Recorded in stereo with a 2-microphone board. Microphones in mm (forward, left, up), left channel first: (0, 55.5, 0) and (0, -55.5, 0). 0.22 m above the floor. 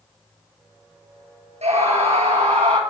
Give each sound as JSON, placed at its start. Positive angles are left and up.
{"t": 1.6, "sound": "a scream", "side_deg": -70, "distance_m": 4.5}